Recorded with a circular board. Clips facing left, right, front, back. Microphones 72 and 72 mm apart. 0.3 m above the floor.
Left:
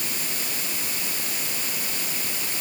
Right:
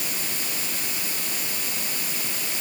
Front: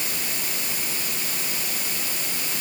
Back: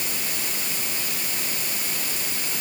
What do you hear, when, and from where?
Only background noise.